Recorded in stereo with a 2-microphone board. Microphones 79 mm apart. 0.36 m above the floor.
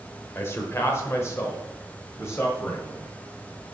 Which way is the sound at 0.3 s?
30° left (ahead or behind).